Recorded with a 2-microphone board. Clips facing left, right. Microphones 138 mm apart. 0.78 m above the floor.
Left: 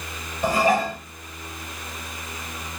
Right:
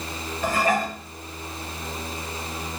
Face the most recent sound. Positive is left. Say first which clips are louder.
# left 3 dB
turn(degrees=15)  # may be behind; listen again after turning